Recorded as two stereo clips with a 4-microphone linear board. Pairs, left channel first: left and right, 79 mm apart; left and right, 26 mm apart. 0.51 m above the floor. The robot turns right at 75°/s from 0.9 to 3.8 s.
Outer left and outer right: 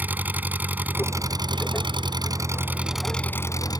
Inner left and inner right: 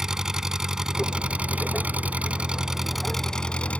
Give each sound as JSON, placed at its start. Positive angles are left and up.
{"t": 0.0, "sound": "an engine running", "azimuth_deg": -160}